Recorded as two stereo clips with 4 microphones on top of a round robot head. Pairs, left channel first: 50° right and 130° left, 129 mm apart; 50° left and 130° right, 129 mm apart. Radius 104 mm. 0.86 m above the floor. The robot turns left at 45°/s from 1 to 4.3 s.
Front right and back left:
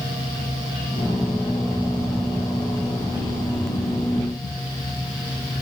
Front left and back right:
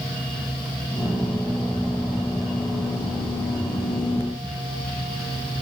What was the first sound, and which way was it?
Only background noise.